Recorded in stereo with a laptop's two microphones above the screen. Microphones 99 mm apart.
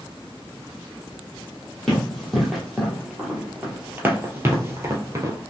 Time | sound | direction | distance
1.9 | running footsteps | 5° left (ahead or behind) | 1.7 m